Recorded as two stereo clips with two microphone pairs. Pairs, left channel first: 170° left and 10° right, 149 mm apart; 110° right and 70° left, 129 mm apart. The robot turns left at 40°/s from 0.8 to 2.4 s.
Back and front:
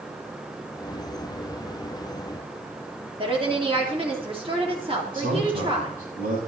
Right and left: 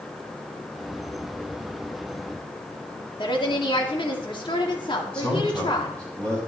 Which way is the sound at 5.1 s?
30° right.